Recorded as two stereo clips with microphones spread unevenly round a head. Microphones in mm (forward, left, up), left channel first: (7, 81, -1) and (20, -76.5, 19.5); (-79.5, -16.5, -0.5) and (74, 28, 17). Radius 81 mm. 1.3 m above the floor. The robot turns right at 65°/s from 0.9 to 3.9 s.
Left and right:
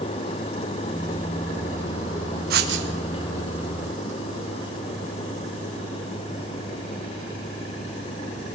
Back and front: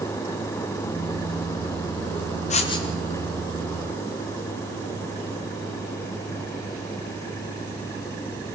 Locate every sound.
2.5 s writing: 120° right, 2.5 m; by 2.9 s 95° right, 2.5 m